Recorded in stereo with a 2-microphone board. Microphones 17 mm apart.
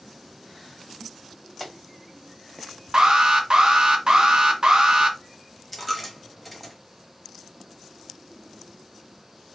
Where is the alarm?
45° right (ahead or behind), 0.6 m.